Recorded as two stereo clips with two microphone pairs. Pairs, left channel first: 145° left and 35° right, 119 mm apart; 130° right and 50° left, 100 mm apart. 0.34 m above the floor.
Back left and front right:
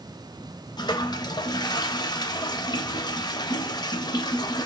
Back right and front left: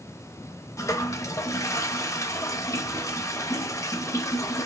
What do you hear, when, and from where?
0.8 s a toilet flushing: 175° right, 0.5 m